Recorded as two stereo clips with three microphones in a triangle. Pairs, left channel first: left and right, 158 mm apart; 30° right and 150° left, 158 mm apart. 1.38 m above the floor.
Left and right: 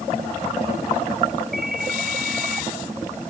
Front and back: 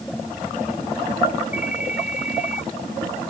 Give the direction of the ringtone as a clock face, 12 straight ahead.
2 o'clock.